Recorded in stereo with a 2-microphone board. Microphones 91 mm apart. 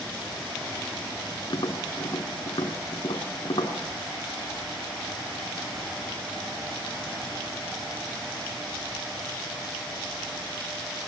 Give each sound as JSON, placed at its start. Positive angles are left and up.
{"t": 1.5, "sound": "tapping", "side_deg": 55, "distance_m": 2.5}